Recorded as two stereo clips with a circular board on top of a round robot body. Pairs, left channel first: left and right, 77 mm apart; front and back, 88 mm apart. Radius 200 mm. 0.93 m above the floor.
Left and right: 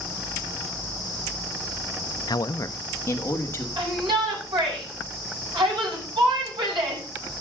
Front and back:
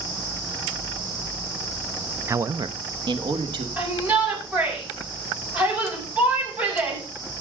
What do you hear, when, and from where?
2.3 s a man speaking: 120° left, 0.5 m; by 3.7 s 150° left, 2 m
3.8 s a shout: 105° right, 7.5 m